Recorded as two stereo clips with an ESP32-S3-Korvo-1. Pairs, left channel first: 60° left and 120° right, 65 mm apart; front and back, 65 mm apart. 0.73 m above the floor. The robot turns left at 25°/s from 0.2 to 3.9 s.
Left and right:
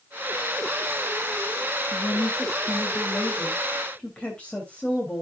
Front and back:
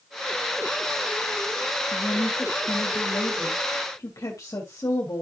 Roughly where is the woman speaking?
Ahead left.